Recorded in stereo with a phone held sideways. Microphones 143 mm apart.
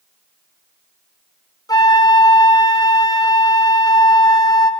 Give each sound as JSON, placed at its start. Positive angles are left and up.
{"t": 1.7, "sound": "a flute", "side_deg": 25, "distance_m": 0.6}